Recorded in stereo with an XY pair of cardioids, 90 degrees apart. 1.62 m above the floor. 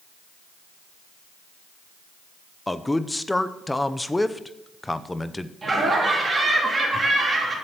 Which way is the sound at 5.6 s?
35° right.